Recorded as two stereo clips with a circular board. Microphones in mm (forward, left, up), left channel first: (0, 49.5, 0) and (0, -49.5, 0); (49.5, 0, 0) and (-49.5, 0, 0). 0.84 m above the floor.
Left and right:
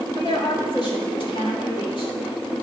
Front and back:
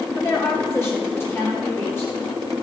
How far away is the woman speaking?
About 2.5 m.